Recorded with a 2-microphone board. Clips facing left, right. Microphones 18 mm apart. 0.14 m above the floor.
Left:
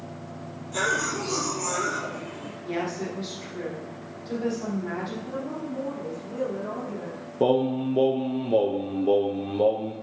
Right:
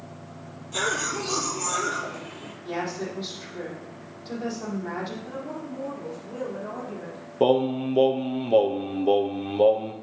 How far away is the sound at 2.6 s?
About 5.5 m.